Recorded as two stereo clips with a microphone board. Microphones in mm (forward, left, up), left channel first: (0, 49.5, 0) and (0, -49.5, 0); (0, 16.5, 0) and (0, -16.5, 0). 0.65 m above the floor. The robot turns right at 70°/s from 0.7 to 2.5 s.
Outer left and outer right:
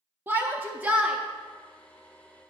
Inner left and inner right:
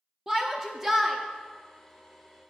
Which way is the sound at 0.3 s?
20° right (ahead or behind).